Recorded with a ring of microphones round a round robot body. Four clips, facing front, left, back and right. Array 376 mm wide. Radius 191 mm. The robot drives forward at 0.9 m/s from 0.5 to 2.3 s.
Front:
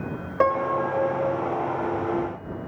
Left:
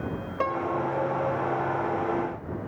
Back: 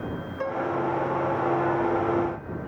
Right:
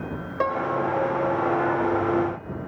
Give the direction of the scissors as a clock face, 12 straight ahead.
No scissors in this recording.